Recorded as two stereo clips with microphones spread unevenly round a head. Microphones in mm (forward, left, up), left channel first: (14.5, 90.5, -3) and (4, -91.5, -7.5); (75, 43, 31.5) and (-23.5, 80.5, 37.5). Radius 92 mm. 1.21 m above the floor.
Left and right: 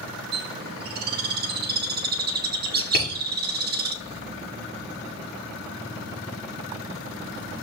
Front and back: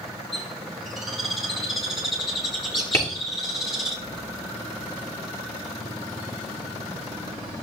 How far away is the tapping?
About 7 m.